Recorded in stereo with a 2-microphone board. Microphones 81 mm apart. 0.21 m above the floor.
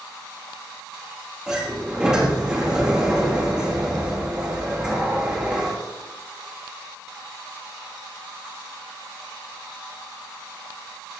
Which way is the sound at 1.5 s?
5° right (ahead or behind).